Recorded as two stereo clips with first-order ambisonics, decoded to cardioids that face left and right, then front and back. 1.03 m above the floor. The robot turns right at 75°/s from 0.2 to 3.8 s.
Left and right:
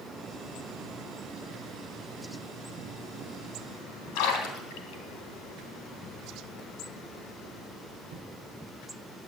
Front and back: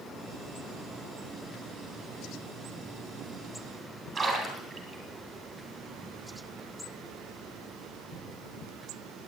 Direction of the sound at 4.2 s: 95° left.